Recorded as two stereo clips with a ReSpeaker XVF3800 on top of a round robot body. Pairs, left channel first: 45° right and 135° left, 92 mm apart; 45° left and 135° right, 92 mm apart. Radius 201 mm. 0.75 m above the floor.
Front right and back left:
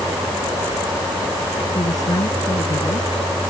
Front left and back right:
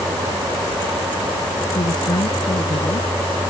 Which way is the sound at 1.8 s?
5° left.